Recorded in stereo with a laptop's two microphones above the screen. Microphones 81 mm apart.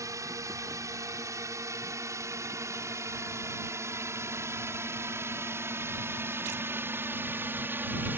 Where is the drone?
45° right (ahead or behind); by 8.2 s 25° right (ahead or behind).